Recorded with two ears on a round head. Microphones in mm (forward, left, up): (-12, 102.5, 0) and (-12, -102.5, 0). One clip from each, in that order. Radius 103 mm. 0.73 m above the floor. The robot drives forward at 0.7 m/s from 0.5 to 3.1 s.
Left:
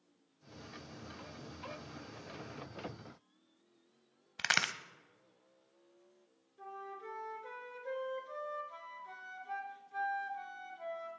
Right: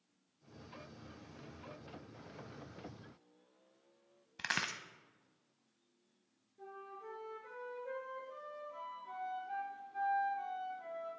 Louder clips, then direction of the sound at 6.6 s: Left 4 dB; 55° left (ahead or behind).